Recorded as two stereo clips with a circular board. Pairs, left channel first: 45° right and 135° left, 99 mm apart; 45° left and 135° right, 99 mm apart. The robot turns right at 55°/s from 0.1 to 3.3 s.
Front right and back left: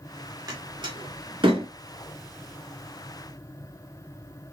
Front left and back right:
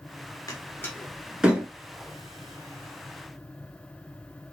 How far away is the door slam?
About 2.0 m.